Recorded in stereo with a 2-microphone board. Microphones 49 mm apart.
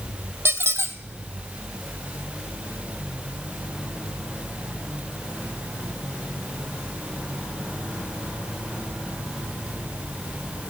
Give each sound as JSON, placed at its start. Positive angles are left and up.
{"t": 0.5, "sound": "a squeak", "side_deg": -55, "distance_m": 0.7}